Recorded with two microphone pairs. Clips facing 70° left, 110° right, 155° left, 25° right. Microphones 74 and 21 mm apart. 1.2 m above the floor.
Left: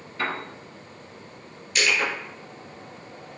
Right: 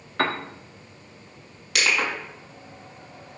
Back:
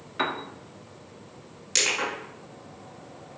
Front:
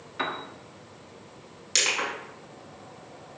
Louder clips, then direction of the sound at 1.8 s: Even, even; 105° right.